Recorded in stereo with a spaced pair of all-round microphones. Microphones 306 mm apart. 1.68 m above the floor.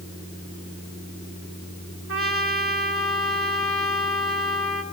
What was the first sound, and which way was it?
A trumpet, 45° right (ahead or behind).